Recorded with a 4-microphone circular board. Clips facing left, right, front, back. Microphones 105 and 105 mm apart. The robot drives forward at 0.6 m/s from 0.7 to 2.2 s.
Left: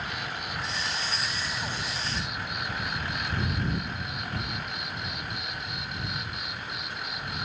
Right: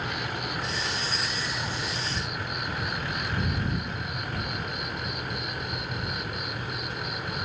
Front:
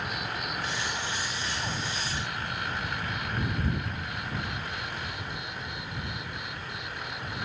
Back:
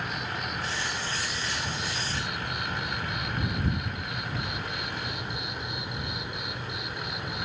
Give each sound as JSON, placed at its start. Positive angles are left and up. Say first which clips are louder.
{"t": 0.0, "sound": "an insect", "louder": "right 3 dB, back 1 dB", "azimuth_deg": -85}